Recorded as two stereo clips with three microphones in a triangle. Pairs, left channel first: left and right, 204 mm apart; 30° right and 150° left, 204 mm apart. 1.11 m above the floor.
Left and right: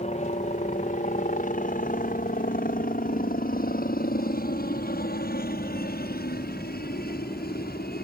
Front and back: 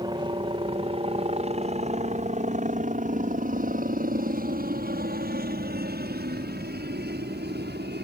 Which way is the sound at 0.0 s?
100° left.